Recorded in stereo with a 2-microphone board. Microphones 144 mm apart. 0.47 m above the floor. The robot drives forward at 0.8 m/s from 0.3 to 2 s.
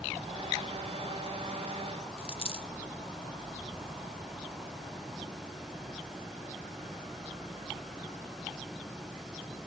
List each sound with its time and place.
2.2 s a dropped coin: 40° left (ahead or behind), 0.6 m